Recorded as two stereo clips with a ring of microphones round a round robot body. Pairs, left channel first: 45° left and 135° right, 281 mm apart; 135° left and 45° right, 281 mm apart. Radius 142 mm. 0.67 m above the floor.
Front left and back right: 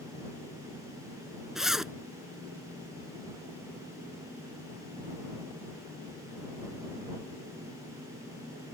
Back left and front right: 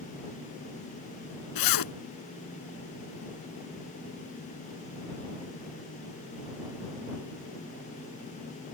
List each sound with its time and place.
1.6 s a zipper: 135° left